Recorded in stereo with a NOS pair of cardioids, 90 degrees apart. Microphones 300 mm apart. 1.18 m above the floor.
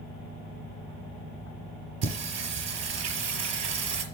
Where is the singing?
60° right, 4 m.